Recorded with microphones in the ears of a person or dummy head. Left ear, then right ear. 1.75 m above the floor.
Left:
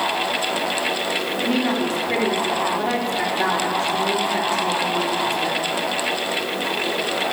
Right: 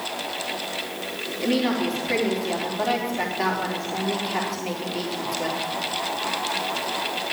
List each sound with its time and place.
1.4 s a woman speaking: 5° right (ahead or behind), 3.5 m